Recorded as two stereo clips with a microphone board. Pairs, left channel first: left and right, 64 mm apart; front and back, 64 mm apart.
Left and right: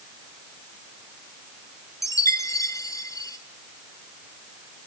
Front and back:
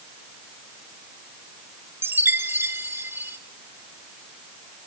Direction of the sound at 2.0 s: 125° left.